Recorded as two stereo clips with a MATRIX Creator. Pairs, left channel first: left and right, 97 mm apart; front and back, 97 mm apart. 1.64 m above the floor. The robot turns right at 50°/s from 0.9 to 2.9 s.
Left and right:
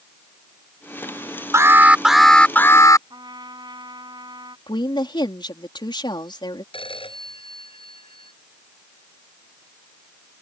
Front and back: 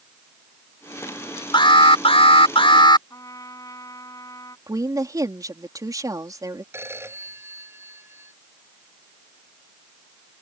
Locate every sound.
1.5 s an alarm: 35° right; by 3.0 s 35° left
3.1 s a trumpet: 50° right
4.7 s a woman speaking: 125° left
6.7 s a phone ringing: 115° left